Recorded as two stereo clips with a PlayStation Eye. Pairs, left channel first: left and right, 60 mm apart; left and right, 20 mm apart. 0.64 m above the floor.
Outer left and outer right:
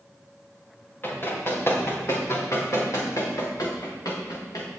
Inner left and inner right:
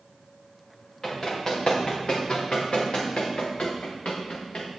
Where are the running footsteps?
35° left (ahead or behind), 4.5 m; by 4.8 s 75° left (ahead or behind), 3.5 m.